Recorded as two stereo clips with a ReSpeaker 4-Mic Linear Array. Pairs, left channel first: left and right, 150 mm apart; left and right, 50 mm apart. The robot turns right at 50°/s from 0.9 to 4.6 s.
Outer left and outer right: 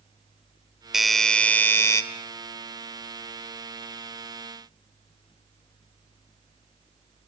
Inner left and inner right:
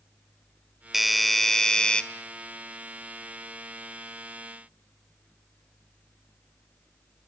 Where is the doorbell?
5° right (ahead or behind), 1.4 m; by 2.0 s 20° left (ahead or behind), 1.4 m.